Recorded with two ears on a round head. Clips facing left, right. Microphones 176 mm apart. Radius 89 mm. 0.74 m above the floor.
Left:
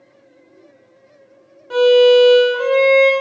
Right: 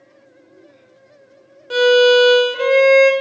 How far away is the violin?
About 0.5 m.